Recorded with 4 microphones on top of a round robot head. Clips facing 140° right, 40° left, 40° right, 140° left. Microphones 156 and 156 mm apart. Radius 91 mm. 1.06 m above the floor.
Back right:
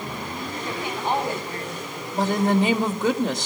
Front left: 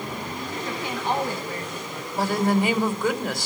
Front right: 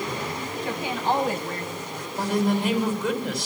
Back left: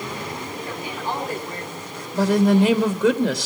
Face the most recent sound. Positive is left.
turn(degrees=150)